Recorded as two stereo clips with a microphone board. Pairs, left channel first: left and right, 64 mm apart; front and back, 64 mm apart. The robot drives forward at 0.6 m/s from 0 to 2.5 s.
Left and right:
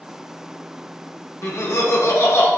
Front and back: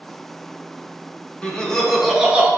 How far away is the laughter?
About 0.9 m.